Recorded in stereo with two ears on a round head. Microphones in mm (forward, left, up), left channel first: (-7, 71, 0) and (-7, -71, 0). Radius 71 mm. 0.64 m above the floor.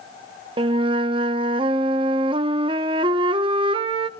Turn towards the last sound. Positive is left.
turn(degrees=-30)  # may be behind; listen again after turning